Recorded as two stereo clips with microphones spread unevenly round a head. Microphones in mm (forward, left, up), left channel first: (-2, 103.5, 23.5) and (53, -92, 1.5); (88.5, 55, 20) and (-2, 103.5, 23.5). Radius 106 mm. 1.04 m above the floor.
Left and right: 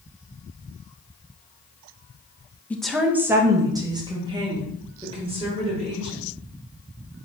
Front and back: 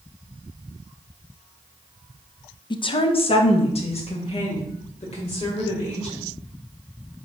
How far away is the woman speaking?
About 0.5 m.